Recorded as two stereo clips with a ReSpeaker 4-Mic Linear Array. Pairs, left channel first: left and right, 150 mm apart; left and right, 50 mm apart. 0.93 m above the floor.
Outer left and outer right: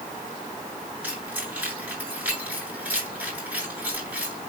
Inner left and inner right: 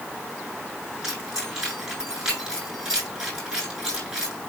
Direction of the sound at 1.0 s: 10° right (ahead or behind).